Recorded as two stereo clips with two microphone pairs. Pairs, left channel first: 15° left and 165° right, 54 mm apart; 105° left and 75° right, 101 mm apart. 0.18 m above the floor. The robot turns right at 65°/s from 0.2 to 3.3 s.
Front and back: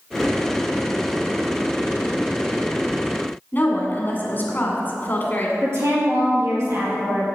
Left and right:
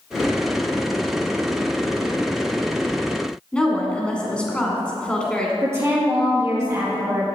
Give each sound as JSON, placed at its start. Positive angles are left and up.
{"t": 3.5, "sound": "a woman speaking", "azimuth_deg": 30, "distance_m": 1.9}
{"t": 5.6, "sound": "a woman speaking", "azimuth_deg": -140, "distance_m": 3.5}